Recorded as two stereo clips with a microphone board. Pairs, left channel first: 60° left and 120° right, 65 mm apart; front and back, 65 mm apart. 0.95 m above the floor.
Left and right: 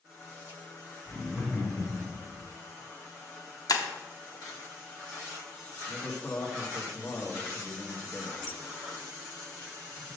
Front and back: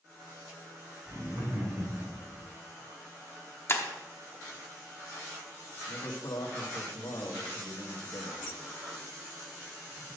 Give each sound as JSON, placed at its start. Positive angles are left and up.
{"t": 1.1, "sound": "laughter", "azimuth_deg": 150, "distance_m": 3.5}
{"t": 3.7, "sound": "breaking glass", "azimuth_deg": 45, "distance_m": 0.9}
{"t": 5.9, "sound": "a man speaking", "azimuth_deg": 5, "distance_m": 1.9}